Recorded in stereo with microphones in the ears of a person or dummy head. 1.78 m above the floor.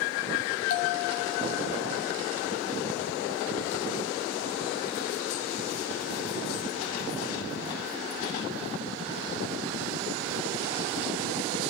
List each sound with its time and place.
0.7 s a bell: 55° left (ahead or behind), 3 m